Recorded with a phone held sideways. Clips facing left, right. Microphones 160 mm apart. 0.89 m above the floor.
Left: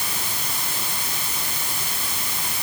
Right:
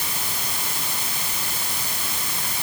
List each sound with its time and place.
Only background noise.